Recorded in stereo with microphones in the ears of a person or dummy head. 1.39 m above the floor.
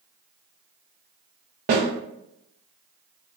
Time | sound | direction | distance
1.7 | a snare drum | 45° right (ahead or behind) | 1.0 m